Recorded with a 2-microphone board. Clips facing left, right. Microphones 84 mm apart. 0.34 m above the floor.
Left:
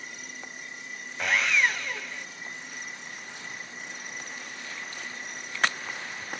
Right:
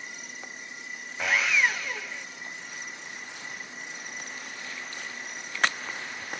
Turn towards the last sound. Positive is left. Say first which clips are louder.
# even
turn(degrees=-5)  # may be behind; listen again after turning